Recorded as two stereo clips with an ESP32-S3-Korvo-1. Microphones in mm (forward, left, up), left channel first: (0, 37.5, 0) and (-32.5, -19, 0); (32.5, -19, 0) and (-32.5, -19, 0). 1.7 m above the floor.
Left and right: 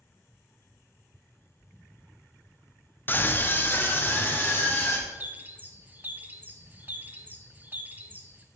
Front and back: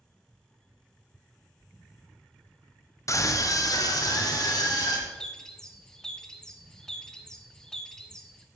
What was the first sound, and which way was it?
A scream, 10° left.